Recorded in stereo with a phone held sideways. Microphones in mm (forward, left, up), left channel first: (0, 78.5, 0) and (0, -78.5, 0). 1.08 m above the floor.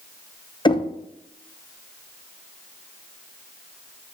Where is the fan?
I don't hear a fan.